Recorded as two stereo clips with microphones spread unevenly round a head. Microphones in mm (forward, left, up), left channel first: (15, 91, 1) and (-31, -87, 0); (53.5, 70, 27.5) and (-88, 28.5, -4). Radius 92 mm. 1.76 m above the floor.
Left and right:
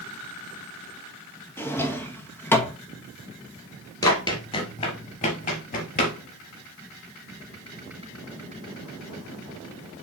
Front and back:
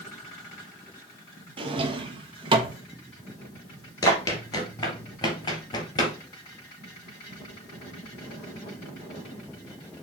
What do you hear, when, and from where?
1.6 s a drawer: 145° left, 1.1 m
4.0 s running footsteps: 20° left, 2.0 m; by 6.2 s 55° left, 2.5 m